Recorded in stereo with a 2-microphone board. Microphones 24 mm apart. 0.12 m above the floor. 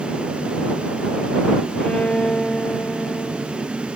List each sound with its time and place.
1.8 s a violin: 55° left (ahead or behind)